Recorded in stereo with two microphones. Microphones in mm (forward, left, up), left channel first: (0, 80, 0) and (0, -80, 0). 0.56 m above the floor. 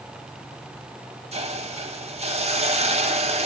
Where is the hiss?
45° right (ahead or behind), 1.2 m.